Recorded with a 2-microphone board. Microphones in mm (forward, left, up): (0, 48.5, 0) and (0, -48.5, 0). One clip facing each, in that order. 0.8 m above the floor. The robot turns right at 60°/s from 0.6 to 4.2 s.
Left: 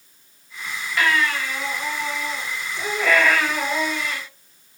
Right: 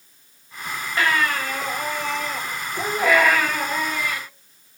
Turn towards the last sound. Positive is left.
turn(degrees=50)